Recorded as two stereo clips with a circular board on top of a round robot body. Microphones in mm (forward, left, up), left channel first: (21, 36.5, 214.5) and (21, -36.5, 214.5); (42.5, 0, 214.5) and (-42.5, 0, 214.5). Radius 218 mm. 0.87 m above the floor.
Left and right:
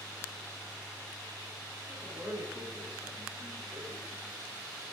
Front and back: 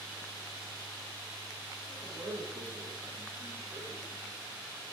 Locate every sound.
1.9 s a man speaking: 145° right, 5.5 m